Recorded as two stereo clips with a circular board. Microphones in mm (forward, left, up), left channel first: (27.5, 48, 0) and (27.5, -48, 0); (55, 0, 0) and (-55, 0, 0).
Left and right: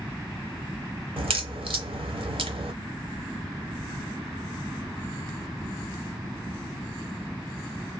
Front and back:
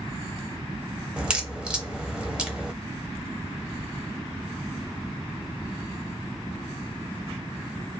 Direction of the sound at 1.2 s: 100° right.